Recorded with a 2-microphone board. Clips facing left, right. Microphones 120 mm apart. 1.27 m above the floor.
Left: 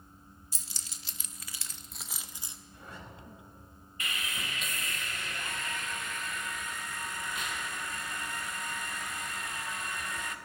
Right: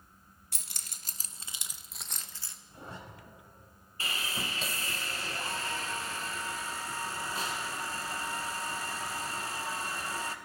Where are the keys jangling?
60° right (ahead or behind), 1.0 m; by 2.6 s 20° left (ahead or behind), 1.0 m.